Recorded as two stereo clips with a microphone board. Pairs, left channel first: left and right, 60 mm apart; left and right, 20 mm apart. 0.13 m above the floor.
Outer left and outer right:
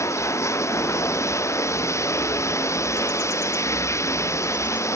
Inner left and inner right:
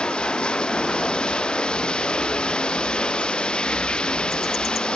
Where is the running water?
60° left (ahead or behind).